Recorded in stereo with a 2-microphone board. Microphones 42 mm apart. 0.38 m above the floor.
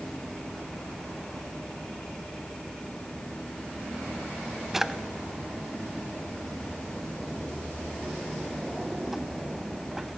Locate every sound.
4.7 s a drawer: 5° right (ahead or behind), 0.6 m